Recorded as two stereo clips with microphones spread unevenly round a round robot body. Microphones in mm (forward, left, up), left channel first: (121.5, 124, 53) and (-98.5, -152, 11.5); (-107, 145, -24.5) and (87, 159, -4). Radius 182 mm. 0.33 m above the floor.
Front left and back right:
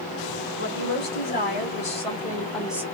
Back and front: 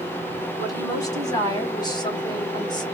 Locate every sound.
0.6 s a woman speaking: 115° left, 3 m; by 2.8 s 170° left, 1.1 m